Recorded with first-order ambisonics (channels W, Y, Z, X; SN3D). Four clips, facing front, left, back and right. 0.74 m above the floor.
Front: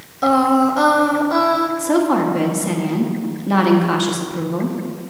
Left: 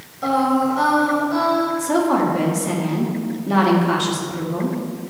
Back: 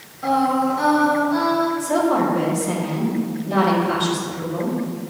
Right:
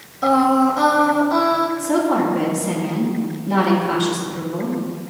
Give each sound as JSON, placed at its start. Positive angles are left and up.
{"t": 0.2, "sound": "singing", "azimuth_deg": -15, "distance_m": 0.8}
{"t": 1.8, "sound": "a woman speaking", "azimuth_deg": 25, "distance_m": 1.3}